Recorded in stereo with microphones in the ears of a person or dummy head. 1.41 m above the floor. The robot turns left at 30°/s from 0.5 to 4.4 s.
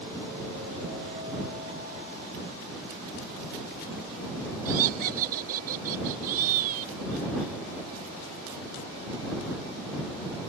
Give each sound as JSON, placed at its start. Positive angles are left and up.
{"t": 4.7, "sound": "laughter", "side_deg": -50}